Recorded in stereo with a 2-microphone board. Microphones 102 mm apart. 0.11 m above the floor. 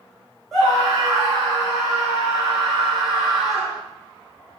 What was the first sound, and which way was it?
A scream, centre (ahead or behind).